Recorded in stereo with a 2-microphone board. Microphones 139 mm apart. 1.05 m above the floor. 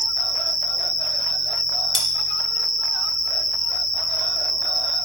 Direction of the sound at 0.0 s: 60° right (ahead or behind).